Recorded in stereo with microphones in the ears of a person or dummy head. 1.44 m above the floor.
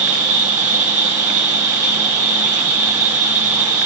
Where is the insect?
10° right (ahead or behind), 1.3 m.